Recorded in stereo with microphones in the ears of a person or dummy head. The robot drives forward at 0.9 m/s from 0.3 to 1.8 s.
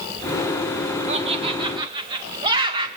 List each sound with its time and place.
1.1 s laughter: 35° right (ahead or behind), 1.3 m; by 2.9 s 25° right (ahead or behind), 1.8 m